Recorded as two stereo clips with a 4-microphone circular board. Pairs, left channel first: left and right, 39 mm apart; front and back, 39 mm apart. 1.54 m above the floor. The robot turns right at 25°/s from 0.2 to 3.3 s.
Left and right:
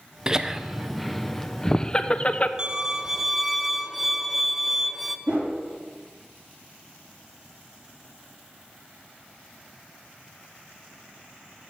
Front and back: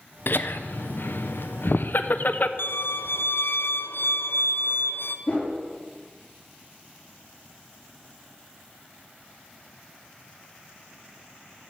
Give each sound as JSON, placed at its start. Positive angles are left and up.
{"t": 0.3, "sound": "laughter", "azimuth_deg": -15, "distance_m": 0.7}
{"t": 2.6, "sound": "a violin", "azimuth_deg": -20, "distance_m": 0.5}
{"t": 5.3, "sound": "a whoosh", "azimuth_deg": -45, "distance_m": 4.0}